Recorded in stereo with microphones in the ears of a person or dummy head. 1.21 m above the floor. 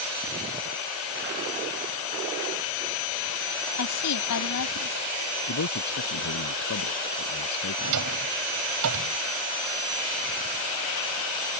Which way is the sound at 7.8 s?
75° right (ahead or behind).